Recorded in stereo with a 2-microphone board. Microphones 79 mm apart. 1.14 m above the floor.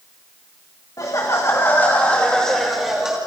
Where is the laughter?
45° left (ahead or behind), 2.5 m; by 3.2 s 10° right (ahead or behind), 2.5 m.